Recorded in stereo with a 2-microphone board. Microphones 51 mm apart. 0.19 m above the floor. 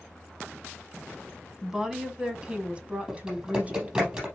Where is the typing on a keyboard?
20° right (ahead or behind), 4.5 m.